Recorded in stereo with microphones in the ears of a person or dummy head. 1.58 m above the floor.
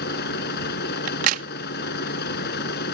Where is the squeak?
No squeak in this recording.